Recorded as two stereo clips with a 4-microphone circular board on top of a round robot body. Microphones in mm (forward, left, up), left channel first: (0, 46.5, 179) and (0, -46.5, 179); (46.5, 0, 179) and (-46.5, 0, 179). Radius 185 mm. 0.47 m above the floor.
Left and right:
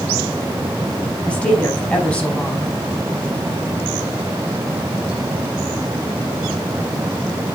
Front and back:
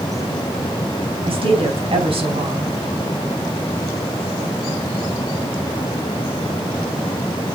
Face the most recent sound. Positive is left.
turn(degrees=165)